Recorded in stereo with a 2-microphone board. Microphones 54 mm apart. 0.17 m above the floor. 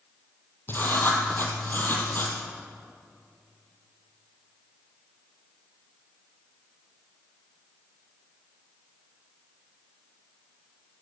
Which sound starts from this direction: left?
Writing, at 0.7 s.